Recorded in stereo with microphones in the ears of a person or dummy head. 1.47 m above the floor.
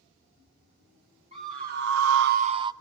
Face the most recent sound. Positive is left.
turn(degrees=-25)  # may be behind; listen again after turning